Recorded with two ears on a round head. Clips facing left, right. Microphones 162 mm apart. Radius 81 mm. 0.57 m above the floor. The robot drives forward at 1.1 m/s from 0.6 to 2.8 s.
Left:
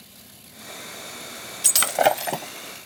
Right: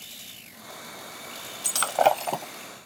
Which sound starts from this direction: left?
Breaking glass, at 1.6 s.